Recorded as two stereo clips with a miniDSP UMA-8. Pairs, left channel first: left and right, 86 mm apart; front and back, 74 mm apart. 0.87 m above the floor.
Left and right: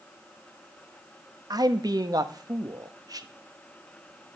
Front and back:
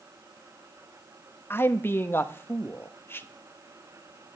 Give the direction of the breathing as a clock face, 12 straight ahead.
I don't hear breathing.